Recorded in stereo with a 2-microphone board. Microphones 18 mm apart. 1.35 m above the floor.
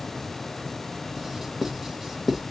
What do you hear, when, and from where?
1.2 s writing: 20° right (ahead or behind), 1.0 m